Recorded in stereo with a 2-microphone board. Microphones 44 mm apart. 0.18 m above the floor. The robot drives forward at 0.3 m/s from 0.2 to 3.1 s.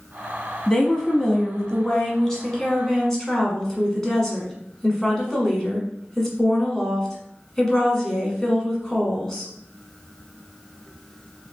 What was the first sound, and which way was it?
A woman speaking, 15° left (ahead or behind).